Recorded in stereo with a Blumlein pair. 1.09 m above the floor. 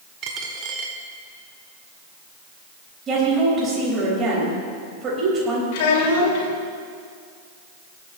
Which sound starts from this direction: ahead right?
A dropped coin, at 0.2 s.